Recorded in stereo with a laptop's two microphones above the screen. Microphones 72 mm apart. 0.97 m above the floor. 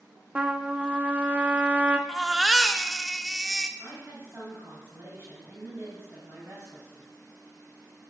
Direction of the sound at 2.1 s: 5° right (ahead or behind).